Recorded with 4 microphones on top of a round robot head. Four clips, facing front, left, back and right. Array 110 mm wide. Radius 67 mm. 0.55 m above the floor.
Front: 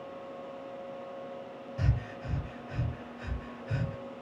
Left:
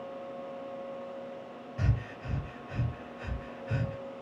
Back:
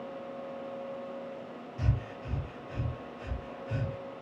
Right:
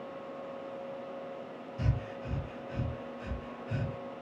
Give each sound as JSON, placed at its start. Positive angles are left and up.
{"t": 1.8, "sound": "breathing", "azimuth_deg": 70, "distance_m": 1.7}